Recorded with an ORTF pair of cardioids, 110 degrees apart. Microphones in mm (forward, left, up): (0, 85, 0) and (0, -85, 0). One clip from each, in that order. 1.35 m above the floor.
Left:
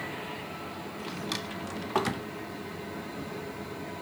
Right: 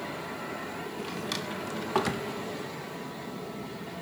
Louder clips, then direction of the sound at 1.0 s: Even; straight ahead.